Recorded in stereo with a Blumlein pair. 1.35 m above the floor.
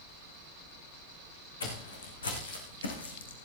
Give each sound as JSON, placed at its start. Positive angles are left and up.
{"t": 1.6, "sound": "footsteps", "azimuth_deg": 70, "distance_m": 6.0}